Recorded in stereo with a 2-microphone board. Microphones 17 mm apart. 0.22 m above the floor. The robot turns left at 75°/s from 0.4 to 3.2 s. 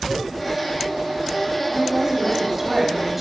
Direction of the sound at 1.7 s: 15° right (ahead or behind).